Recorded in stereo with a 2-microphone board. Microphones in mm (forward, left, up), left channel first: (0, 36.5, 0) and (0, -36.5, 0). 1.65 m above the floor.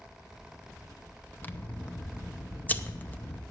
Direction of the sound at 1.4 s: 25° left (ahead or behind).